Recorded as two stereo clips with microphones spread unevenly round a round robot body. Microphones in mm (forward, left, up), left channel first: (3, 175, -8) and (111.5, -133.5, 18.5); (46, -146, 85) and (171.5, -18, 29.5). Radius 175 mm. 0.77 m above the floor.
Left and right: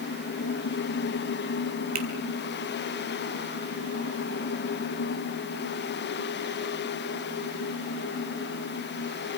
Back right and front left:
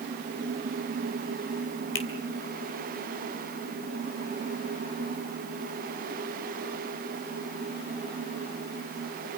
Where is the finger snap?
140° right, 3 m.